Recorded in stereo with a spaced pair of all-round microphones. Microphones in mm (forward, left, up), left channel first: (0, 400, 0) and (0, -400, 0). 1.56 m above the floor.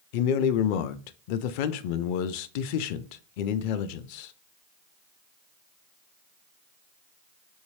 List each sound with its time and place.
0.1 s a man speaking: 85° left, 0.6 m